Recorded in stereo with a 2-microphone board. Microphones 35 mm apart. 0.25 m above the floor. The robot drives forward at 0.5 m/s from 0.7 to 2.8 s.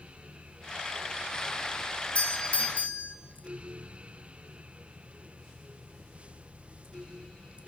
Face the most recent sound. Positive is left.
turn(degrees=40)  # may be behind; listen again after turning